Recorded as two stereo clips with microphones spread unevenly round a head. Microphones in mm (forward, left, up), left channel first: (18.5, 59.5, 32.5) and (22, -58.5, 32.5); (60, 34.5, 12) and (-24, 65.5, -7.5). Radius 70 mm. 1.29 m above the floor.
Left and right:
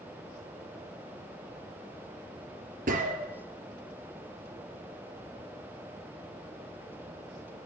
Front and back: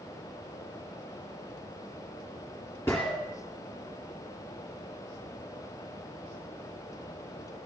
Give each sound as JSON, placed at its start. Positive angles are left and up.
{"t": 2.9, "sound": "a gunshot", "azimuth_deg": -100, "distance_m": 3.5}